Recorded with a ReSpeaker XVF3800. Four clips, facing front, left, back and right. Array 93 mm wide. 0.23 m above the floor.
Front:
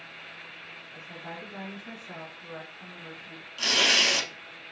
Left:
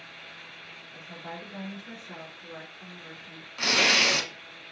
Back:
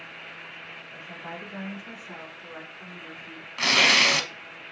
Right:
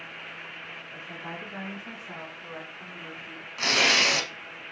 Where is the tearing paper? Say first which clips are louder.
Right 1 dB, back 5 dB; 175° right, 0.7 m.